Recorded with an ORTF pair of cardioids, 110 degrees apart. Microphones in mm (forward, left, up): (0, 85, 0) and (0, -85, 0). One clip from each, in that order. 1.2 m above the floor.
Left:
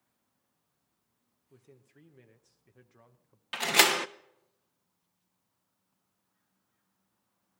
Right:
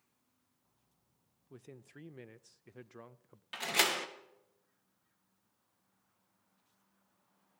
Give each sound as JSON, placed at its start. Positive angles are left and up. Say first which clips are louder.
{"t": 1.5, "sound": "a man speaking", "louder": "right 6 dB", "azimuth_deg": -40, "distance_m": 0.7}
{"t": 3.5, "sound": "a door slam", "louder": "left 7 dB", "azimuth_deg": 35, "distance_m": 0.6}